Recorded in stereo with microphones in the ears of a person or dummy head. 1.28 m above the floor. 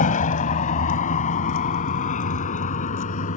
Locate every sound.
0.0 s a vehicle: 45° left (ahead or behind)